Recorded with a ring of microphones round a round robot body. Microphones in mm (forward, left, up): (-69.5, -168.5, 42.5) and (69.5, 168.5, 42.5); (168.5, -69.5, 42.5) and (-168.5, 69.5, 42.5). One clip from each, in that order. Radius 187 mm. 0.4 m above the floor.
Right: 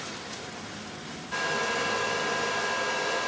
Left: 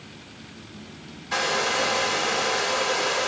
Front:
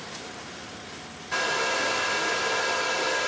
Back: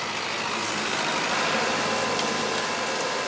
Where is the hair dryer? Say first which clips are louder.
Left 5 dB, front 4 dB; 60° left, 0.9 m.